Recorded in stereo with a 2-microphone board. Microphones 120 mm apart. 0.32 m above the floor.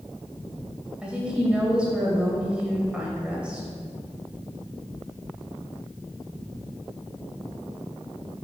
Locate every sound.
1.0 s a woman speaking: 10° right (ahead or behind), 1.4 m